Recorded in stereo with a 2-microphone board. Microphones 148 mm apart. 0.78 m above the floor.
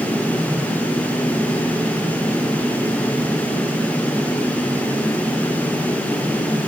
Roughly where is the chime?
No chime in this recording.